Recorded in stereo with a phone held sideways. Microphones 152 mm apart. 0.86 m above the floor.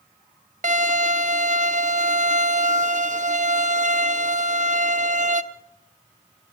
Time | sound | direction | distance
0.6 | a violin | 55° right (ahead or behind) | 0.6 m